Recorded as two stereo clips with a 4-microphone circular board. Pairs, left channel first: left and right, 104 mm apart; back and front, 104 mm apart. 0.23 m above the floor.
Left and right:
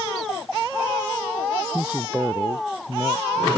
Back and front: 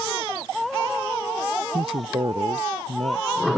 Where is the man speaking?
15° right; by 3.6 s 10° right.